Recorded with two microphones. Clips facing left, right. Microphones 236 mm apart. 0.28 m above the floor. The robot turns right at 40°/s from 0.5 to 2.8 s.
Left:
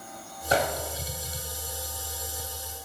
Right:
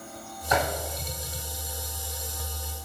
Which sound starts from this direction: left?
A microwave, at 0.5 s.